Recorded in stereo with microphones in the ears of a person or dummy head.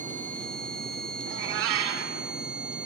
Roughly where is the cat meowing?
Right.